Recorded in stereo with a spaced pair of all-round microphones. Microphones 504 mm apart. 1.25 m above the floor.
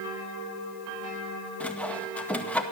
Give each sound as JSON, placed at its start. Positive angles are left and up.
{"t": 1.6, "sound": "sawing", "side_deg": 5, "distance_m": 1.9}